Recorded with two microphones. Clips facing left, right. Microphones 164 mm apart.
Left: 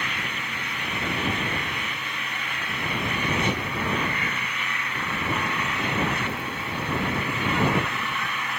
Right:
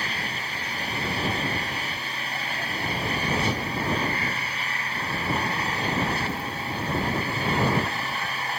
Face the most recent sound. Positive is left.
turn(degrees=-35)  # may be behind; listen again after turning